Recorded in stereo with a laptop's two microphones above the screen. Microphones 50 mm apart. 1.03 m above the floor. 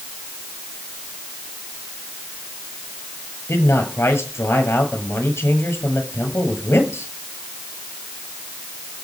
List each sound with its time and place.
3.5 s a man speaking: 60° left (ahead or behind), 7 m